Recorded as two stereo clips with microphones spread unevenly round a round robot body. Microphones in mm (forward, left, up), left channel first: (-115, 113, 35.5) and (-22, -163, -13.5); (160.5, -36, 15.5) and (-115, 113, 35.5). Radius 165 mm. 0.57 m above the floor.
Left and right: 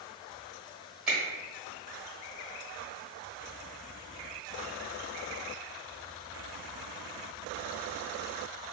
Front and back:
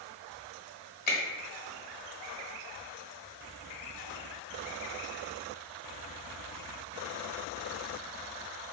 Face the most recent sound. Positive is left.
turn(degrees=0)